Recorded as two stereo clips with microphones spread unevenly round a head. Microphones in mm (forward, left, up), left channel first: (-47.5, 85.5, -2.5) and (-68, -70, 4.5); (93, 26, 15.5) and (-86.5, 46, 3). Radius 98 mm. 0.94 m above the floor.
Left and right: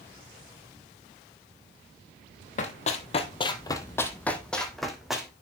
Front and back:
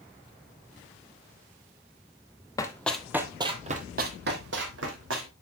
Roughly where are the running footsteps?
Ahead left.